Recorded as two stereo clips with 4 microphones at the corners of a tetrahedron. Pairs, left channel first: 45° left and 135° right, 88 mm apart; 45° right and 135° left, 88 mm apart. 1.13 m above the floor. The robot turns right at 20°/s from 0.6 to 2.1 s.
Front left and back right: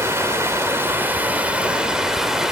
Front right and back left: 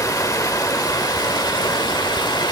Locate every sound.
0.0 s running water: 80° right, 1.2 m; by 2.5 s 50° right, 1.2 m